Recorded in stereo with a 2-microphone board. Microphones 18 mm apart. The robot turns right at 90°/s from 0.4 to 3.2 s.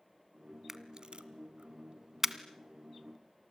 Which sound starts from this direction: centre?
A camera shutter, at 0.7 s.